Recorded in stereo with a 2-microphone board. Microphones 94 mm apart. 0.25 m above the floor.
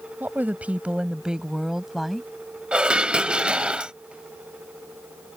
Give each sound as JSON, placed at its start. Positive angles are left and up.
{"t": 0.2, "sound": "a woman speaking", "side_deg": -20}
{"t": 2.7, "sound": "dishes clattering", "side_deg": -10}